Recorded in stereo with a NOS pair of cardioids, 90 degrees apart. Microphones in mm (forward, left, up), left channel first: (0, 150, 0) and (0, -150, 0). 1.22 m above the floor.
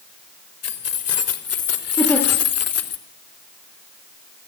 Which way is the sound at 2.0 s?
5° left.